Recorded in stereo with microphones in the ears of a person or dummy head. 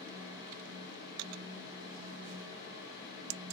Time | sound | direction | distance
0.0 | a fan | 20° right (ahead or behind) | 1.2 m